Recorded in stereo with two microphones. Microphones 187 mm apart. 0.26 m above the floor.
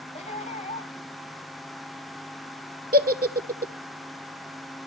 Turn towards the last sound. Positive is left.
turn(degrees=-50)  # may be behind; listen again after turning